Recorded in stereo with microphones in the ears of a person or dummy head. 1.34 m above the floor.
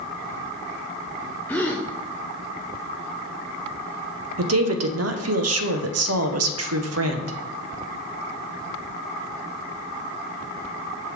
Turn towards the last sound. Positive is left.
turn(degrees=-75)  # may be behind; listen again after turning